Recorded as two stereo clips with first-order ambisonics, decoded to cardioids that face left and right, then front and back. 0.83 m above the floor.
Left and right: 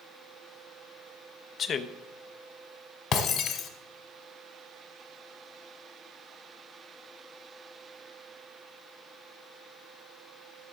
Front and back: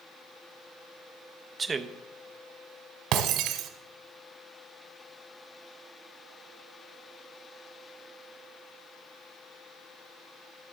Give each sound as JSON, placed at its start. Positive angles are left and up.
{"t": 1.6, "sound": "a man speaking", "azimuth_deg": 115, "distance_m": 0.6}
{"t": 3.1, "sound": "breaking glass", "azimuth_deg": 145, "distance_m": 1.1}